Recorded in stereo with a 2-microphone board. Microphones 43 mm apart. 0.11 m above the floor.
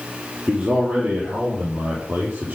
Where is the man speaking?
35° right (ahead or behind), 3 m; by 2.6 s 55° right (ahead or behind), 4.5 m.